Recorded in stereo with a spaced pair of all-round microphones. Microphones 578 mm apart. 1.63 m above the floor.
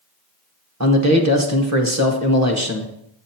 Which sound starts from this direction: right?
A man speaking, at 0.8 s.